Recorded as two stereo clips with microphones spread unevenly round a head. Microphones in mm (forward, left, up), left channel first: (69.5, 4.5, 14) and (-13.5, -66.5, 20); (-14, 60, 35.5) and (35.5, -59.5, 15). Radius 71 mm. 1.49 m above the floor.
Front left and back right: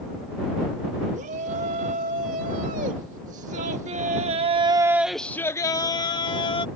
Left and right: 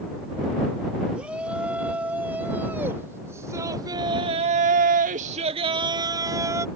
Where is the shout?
150° right; by 6.7 s straight ahead.